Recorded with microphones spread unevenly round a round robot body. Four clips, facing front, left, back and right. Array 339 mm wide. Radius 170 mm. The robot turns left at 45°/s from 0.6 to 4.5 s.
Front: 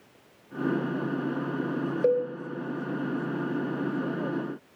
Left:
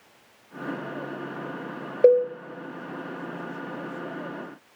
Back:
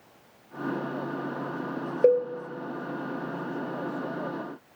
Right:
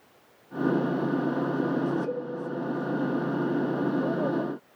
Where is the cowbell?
115° left, 0.8 m; by 2.3 s 105° left, 0.8 m.